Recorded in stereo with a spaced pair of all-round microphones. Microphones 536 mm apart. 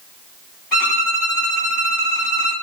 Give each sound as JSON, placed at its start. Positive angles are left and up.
{"t": 0.7, "sound": "a violin", "side_deg": 35, "distance_m": 1.8}